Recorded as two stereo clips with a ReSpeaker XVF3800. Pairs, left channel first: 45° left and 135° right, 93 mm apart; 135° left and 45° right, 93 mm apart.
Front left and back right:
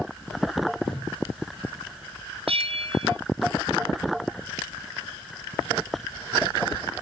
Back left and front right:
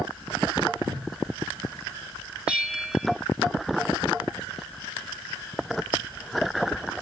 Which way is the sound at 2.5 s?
125° right.